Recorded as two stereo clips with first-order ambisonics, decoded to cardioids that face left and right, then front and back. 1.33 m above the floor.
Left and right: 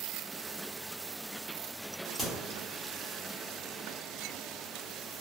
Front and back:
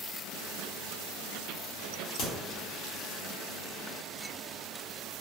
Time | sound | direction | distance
2.2 | a crack | 5° right | 1.0 m